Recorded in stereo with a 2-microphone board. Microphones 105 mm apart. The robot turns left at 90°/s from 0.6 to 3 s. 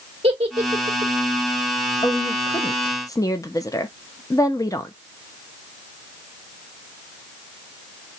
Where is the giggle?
55° right (ahead or behind), 2.0 m; by 1.1 s 70° right (ahead or behind), 2.0 m.